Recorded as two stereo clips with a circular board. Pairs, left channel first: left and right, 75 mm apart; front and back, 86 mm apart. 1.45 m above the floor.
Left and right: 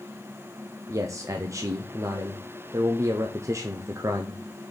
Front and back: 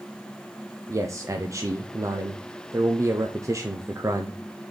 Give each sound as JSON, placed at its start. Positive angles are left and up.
{"t": 0.9, "sound": "a man speaking", "azimuth_deg": -130, "distance_m": 0.7}